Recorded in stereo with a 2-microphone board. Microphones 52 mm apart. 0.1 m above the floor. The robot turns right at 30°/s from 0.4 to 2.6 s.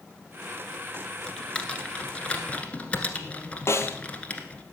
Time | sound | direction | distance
1.3 | typing on a keyboard | 15° left (ahead or behind) | 1.3 m
3.7 | a snare drum | 60° left (ahead or behind) | 1.0 m